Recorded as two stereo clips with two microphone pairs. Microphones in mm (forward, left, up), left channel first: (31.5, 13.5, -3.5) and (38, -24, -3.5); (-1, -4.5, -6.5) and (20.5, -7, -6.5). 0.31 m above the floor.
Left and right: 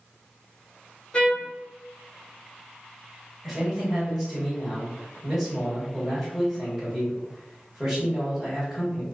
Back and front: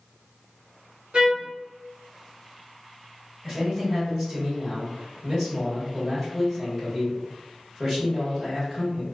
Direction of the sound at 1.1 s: 30° left.